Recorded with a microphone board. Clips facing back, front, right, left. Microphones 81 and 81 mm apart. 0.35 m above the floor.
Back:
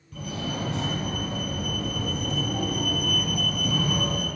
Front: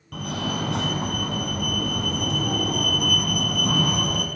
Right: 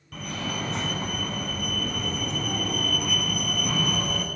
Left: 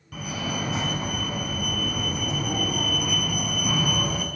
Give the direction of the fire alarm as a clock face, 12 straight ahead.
12 o'clock.